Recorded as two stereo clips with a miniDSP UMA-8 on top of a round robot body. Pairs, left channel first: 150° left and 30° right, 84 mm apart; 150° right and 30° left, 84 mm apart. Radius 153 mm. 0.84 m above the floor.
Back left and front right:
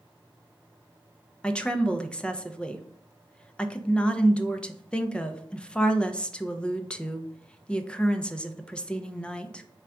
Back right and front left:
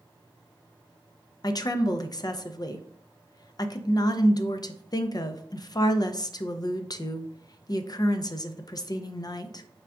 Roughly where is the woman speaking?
Behind right.